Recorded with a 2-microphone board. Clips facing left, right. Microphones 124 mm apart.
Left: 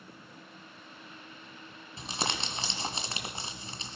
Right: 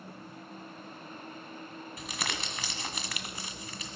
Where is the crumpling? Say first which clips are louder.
Left 4 dB; 30° left (ahead or behind), 1.6 m.